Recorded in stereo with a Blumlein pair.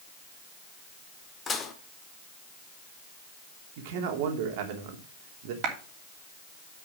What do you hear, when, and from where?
1.5 s dishes clattering: 20° left, 2 m
3.8 s a man speaking: 50° right, 3 m
5.6 s a clap: 35° right, 3 m